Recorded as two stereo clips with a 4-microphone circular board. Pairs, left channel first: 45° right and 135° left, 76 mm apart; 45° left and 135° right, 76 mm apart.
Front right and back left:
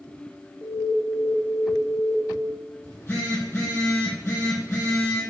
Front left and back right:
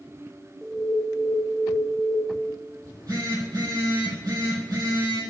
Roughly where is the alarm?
Ahead right.